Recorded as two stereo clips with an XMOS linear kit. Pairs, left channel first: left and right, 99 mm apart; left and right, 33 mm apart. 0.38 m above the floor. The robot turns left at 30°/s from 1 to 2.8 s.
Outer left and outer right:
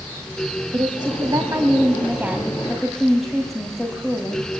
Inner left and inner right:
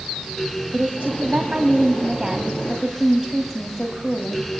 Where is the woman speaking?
125° right, 2.5 m; by 4.5 s straight behind, 2.5 m.